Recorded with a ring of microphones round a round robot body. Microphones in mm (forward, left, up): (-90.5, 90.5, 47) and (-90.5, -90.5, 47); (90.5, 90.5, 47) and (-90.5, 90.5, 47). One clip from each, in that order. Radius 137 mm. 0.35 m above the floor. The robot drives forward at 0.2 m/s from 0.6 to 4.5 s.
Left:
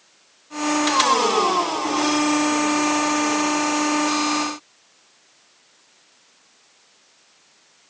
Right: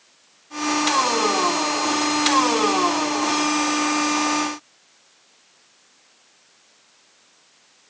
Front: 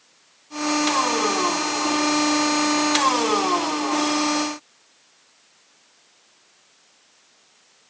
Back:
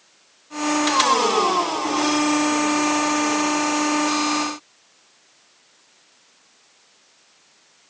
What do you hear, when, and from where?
Only background noise.